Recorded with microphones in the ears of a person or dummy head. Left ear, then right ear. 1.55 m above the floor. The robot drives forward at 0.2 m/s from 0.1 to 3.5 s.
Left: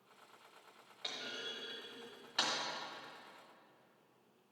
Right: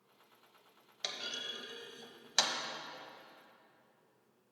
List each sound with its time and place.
1.0 s a clunk: 85° right, 1.2 m; by 2.5 s 75° right (ahead or behind), 1.2 m